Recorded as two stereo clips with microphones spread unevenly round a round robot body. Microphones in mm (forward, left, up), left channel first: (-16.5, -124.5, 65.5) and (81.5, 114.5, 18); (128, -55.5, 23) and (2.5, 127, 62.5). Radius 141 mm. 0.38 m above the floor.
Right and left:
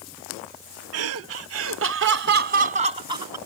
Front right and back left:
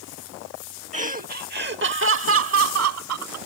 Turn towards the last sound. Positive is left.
turn(degrees=140)